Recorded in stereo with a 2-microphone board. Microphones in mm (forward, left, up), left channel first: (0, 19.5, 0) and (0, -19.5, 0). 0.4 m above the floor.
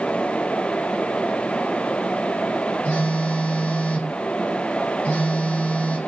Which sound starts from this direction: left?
A phone buzzing, at 2.9 s.